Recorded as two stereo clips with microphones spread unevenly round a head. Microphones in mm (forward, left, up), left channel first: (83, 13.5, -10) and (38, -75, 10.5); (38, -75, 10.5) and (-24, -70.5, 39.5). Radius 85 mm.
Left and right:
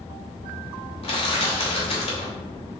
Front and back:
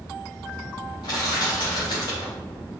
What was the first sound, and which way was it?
Crushing, 40° left.